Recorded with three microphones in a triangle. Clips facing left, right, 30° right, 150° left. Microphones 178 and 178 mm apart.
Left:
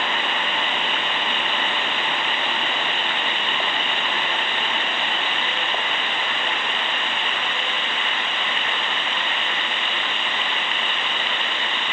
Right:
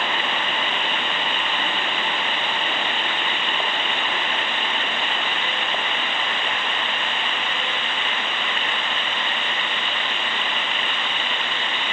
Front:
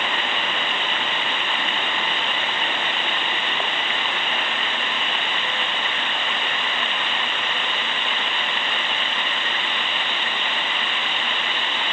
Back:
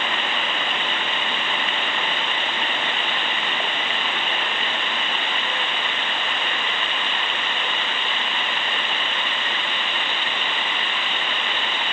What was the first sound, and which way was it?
Only background noise.